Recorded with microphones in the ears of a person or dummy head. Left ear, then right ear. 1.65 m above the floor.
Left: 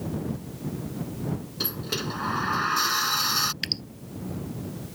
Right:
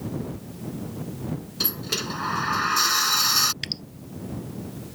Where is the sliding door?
10° right (ahead or behind).